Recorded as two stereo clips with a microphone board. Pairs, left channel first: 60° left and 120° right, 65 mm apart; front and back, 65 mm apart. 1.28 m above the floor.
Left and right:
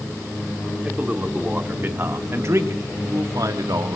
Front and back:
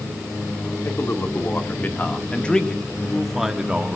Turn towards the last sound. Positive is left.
turn(degrees=-105)